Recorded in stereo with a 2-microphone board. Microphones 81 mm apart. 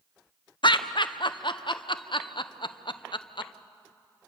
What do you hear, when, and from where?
0.6 s laughter: 75° left (ahead or behind), 0.9 m